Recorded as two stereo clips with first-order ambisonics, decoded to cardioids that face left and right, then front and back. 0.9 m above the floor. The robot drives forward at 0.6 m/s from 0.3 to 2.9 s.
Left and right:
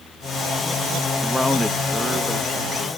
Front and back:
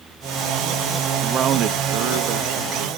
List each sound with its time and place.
1.2 s a man speaking: 170° right, 0.5 m; by 2.9 s straight behind, 1.4 m